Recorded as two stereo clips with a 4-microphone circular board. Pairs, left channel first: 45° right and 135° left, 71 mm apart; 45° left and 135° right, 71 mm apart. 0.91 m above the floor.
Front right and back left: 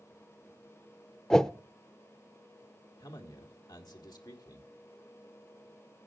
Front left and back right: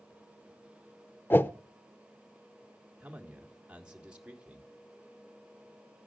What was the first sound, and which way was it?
A whoosh, 30° left.